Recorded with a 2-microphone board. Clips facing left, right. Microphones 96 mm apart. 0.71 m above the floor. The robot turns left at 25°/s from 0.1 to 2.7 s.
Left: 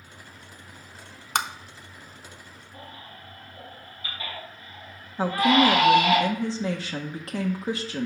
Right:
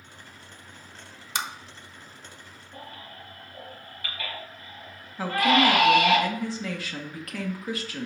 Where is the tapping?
55° left (ahead or behind), 0.7 m.